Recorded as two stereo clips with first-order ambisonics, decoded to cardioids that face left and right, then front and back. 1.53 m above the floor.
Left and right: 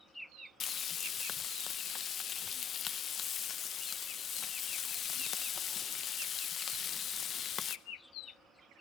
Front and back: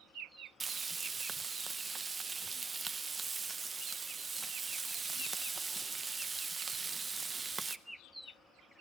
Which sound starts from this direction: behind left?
Frying, at 0.6 s.